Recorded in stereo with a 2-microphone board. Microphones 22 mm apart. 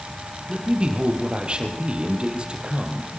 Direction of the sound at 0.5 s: 45° right (ahead or behind).